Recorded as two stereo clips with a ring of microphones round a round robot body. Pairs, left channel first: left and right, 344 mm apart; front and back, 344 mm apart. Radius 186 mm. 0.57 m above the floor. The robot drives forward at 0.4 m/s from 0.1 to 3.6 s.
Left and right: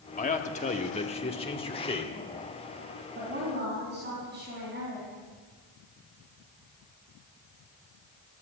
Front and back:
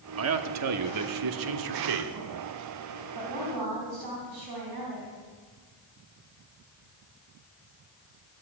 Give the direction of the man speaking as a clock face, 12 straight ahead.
7 o'clock.